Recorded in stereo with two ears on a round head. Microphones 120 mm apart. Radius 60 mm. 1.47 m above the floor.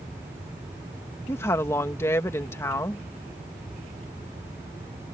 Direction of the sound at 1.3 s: 20° left (ahead or behind).